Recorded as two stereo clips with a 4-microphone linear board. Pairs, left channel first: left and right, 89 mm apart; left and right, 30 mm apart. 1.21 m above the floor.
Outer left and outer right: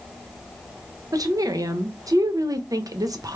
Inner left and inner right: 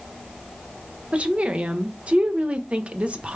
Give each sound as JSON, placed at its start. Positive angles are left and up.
{"t": 1.1, "sound": "a woman speaking", "side_deg": -40, "distance_m": 0.7}